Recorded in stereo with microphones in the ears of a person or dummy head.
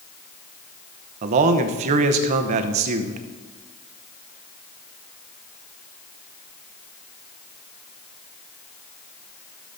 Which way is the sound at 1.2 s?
45° right (ahead or behind).